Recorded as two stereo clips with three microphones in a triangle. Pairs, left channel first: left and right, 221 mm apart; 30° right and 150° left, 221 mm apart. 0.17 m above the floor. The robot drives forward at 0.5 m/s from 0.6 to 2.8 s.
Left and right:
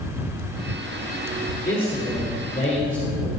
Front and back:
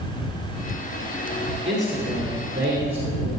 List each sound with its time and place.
1.7 s a man speaking: 170° left, 2 m